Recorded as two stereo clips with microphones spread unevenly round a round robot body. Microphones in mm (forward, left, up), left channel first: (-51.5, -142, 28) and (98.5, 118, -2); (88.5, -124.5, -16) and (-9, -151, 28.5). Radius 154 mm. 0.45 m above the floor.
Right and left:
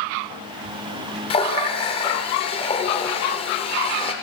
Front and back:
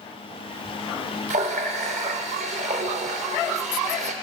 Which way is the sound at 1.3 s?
165° left.